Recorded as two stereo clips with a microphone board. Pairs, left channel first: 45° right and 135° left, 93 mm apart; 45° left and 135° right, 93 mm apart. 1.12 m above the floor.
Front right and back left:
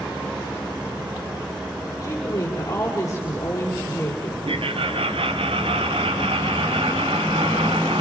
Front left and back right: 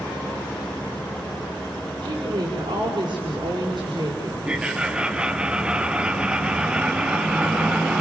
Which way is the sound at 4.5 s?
145° left.